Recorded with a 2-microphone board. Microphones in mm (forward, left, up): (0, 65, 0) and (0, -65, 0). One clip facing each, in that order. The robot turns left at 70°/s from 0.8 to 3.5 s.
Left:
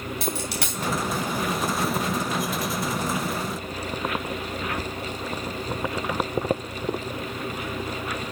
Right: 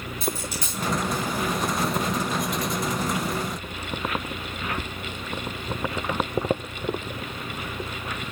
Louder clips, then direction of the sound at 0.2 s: Right 1 dB; 75° left (ahead or behind).